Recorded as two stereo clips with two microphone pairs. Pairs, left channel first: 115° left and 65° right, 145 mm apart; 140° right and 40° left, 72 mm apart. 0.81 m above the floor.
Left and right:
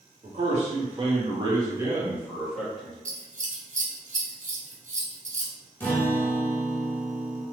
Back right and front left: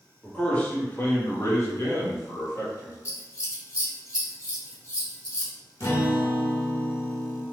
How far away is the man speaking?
About 1.4 m.